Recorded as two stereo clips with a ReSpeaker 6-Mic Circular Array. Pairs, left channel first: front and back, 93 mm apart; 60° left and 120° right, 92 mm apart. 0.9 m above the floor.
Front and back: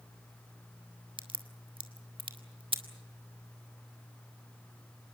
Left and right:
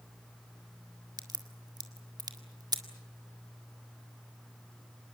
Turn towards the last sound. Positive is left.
turn(degrees=-160)